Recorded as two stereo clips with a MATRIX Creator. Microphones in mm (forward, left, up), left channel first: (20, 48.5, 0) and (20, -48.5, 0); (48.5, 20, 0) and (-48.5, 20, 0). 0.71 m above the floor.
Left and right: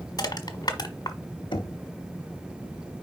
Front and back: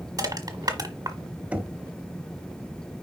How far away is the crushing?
About 1.3 m.